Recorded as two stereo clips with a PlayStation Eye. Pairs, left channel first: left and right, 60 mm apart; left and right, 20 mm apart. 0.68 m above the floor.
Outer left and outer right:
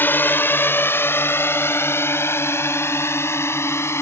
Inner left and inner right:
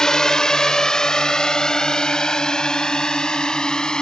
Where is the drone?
35° left (ahead or behind); by 4.0 s 45° left (ahead or behind).